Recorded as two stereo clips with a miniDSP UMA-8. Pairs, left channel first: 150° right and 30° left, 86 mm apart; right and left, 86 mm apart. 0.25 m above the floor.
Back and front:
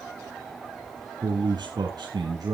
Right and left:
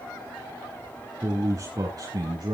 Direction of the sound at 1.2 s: 40° left.